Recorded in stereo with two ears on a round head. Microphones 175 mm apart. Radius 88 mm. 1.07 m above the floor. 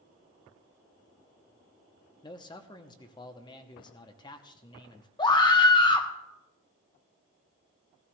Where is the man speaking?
20° left (ahead or behind), 0.8 m.